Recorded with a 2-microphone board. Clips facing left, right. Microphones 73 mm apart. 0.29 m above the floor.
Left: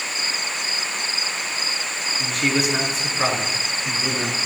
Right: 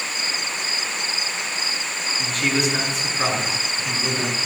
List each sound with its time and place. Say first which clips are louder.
2.2 s a man speaking: left 1 dB; 5° left (ahead or behind), 2.5 m; by 4.3 s 5° right (ahead or behind), 3.5 m